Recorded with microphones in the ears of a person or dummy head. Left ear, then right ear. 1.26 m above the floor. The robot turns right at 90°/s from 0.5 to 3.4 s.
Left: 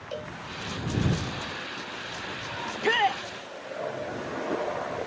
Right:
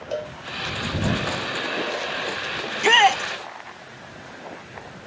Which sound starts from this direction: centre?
A cowbell, at 0.1 s.